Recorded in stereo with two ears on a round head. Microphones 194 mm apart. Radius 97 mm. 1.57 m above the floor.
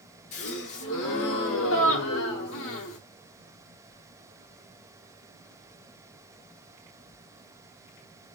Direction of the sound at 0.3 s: 65° left (ahead or behind).